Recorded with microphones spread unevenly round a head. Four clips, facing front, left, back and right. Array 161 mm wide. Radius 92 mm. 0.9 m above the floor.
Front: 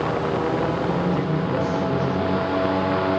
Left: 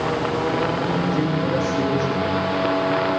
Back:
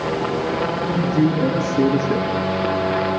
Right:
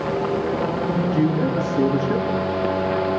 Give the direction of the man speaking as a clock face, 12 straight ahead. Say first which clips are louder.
Right 1 dB, back 4 dB; 5 o'clock.